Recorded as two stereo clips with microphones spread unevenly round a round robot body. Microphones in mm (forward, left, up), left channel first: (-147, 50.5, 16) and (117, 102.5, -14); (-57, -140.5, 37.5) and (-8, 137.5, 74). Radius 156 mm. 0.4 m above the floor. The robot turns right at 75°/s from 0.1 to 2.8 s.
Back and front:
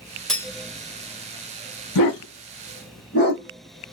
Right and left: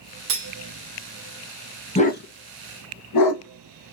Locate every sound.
0.3 s cutlery clinking: 100° left, 0.7 m; by 0.5 s 115° left, 0.7 m
1.9 s a dog barking: 170° right, 1.1 m; by 3.9 s 105° right, 1.1 m